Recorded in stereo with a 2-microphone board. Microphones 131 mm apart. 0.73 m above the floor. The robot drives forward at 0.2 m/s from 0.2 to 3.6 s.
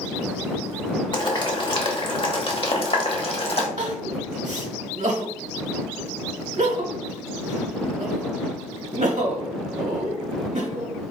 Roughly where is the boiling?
Left.